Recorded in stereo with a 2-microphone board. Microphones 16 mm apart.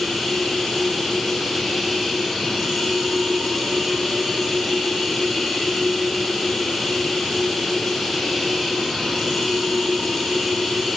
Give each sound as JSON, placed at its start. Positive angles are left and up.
{"t": 0.0, "sound": "running water", "side_deg": 45, "distance_m": 10.0}